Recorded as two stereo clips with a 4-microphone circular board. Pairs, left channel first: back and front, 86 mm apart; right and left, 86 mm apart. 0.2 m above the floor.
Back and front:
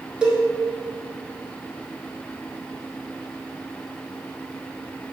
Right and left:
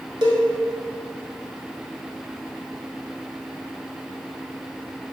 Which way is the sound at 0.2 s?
75° left.